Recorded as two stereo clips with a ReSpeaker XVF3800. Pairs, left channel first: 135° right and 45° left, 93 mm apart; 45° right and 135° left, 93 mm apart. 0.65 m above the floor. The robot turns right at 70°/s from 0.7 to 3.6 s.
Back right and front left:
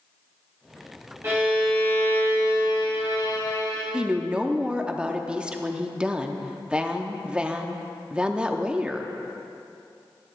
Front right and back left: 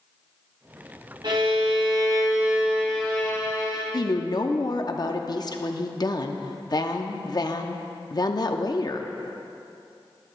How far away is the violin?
About 2.5 m.